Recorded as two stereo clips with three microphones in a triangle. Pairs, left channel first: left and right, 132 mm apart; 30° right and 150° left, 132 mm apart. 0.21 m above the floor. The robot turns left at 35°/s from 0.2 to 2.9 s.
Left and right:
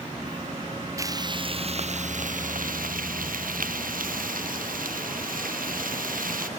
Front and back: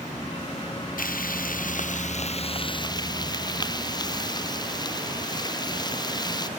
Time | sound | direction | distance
1.0 | frying | 25° right | ?